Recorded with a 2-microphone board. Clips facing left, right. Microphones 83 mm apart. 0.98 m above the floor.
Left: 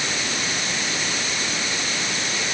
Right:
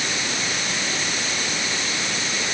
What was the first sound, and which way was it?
Only background noise.